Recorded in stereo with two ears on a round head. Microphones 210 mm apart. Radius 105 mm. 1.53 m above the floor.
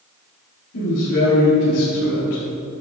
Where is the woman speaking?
50° left (ahead or behind), 3 m.